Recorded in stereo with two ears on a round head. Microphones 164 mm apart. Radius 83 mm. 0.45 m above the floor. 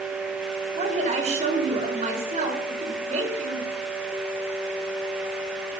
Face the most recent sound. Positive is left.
turn(degrees=-35)  # may be behind; listen again after turning